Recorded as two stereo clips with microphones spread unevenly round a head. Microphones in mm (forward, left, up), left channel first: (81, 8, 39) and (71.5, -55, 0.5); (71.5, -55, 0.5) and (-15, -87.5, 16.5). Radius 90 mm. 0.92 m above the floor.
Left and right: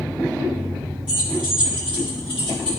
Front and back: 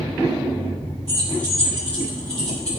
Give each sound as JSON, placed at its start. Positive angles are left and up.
{"t": 1.1, "sound": "keys jangling", "azimuth_deg": 125, "distance_m": 0.8}